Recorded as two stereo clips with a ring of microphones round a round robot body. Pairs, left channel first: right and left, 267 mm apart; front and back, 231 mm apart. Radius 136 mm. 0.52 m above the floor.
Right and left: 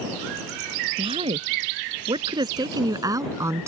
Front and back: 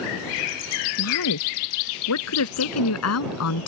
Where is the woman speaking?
20° left; by 3.7 s 10° left.